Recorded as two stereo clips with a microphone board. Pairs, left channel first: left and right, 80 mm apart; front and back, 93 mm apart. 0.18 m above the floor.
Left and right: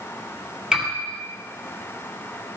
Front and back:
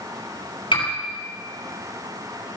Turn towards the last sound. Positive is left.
turn(degrees=-10)